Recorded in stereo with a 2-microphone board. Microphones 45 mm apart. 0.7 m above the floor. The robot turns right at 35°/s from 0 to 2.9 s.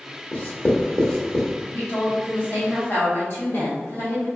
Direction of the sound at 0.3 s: 40° left (ahead or behind).